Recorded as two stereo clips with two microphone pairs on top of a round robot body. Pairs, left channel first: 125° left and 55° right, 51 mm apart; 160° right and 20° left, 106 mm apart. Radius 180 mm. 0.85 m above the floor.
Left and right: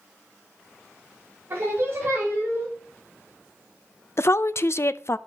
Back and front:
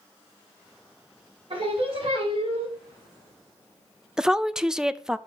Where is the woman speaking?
100° left, 0.6 m.